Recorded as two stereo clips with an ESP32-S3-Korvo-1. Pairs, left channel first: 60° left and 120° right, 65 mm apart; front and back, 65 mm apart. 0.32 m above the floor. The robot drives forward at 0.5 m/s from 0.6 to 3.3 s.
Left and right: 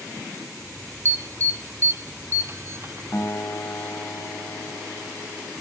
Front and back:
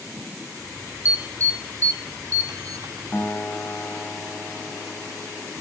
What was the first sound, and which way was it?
An alarm, 140° right.